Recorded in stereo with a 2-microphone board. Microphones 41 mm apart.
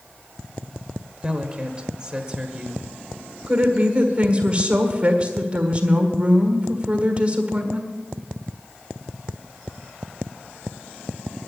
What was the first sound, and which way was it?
A woman speaking, 25° right (ahead or behind).